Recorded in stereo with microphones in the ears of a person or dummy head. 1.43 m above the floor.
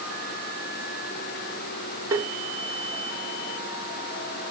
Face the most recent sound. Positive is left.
turn(degrees=-15)  # may be behind; listen again after turning